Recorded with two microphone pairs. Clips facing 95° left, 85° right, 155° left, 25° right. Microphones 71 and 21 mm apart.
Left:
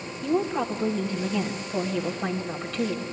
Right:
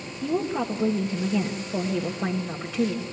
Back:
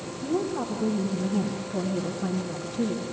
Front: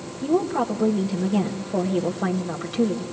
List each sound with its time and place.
0.2 s a woman speaking: 10° right, 1.6 m